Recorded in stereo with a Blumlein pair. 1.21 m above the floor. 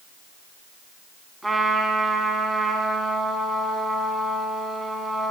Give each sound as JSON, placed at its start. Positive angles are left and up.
{"t": 1.4, "sound": "a trumpet", "azimuth_deg": -10, "distance_m": 2.0}